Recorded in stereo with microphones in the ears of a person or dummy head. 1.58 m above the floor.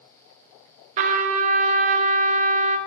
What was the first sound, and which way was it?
A trumpet, 35° right (ahead or behind).